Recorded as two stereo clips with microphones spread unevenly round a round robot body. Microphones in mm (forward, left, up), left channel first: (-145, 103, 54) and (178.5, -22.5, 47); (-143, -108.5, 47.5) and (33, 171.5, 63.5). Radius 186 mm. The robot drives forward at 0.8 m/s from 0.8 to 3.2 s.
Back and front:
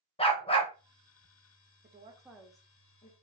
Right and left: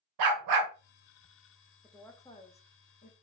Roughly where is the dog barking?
Left.